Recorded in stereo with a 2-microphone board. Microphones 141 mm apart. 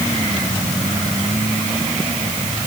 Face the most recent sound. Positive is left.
No sound to turn to.